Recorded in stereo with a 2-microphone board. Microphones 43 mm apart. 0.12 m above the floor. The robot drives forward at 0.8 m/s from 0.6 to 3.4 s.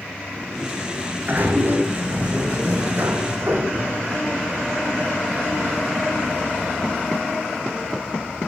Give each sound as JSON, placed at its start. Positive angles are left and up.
{"t": 0.3, "sound": "a sliding door", "side_deg": -40, "distance_m": 7.0}